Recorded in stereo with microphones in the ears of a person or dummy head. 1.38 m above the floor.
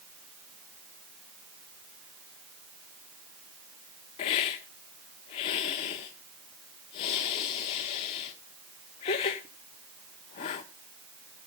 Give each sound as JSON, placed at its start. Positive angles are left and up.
{"t": 4.2, "sound": "a hiss", "side_deg": 25, "distance_m": 1.0}